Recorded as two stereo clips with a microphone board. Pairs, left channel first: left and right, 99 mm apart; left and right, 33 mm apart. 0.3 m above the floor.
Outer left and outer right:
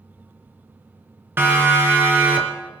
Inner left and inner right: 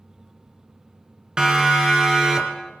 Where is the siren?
25° right (ahead or behind), 3 m; by 2.7 s 20° right (ahead or behind), 4 m.